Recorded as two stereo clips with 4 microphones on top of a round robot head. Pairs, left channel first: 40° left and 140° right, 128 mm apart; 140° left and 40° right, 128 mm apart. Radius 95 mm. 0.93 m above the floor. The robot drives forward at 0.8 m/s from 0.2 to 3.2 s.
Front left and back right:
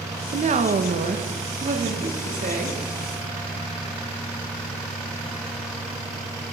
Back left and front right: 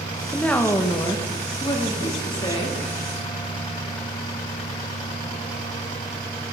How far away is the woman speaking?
About 0.8 m.